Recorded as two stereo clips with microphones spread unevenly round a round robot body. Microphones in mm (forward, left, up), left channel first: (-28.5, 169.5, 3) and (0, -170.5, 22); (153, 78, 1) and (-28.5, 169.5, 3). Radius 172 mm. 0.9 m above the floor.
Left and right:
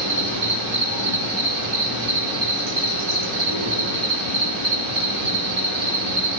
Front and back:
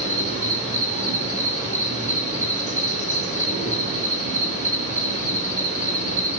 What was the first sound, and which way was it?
An insect, 70° right.